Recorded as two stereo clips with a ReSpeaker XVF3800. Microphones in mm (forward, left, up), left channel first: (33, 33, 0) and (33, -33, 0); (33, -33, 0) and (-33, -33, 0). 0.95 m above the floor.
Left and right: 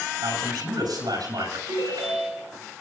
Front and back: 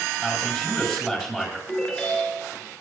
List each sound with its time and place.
0.2 s a man speaking: 95° right, 9 m
1.7 s a ringtone: 85° right, 6.5 m